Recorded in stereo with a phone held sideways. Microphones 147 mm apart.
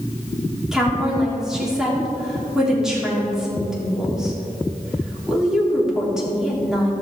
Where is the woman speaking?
5° right (ahead or behind), 3.5 m.